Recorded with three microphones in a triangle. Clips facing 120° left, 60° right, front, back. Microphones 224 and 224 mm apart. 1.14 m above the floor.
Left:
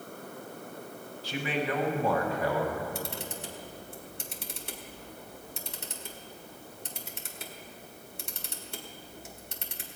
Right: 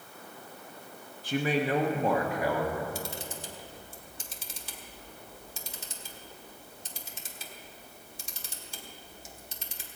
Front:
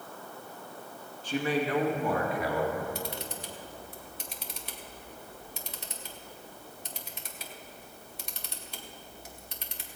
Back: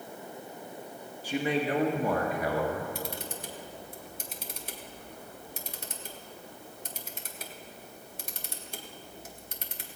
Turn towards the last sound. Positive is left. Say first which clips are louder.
# left 1 dB, even
turn(degrees=140)